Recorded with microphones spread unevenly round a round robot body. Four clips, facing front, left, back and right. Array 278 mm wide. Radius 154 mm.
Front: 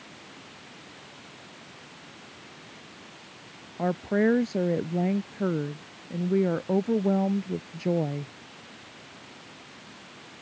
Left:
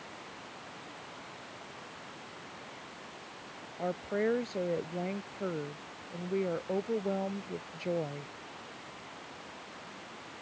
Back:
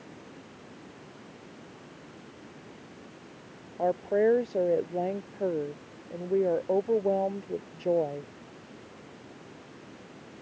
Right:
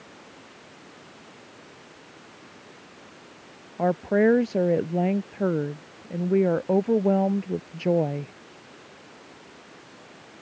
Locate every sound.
3.8 s a woman speaking: 70° right